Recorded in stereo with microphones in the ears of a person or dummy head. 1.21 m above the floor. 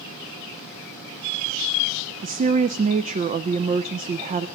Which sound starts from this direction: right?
A woman speaking, at 2.2 s.